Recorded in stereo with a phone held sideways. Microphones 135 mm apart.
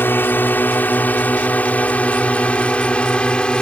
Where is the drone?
15° left (ahead or behind); by 3.6 s 5° left (ahead or behind).